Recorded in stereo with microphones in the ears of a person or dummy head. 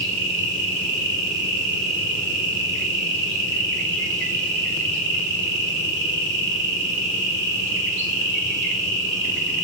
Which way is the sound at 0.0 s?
60° right (ahead or behind).